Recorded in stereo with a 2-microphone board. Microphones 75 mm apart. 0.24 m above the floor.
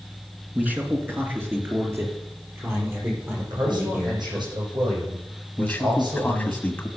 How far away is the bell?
No bell in this recording.